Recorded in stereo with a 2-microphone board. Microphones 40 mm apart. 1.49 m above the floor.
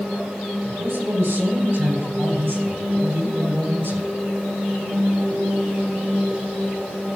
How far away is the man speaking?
About 7 m.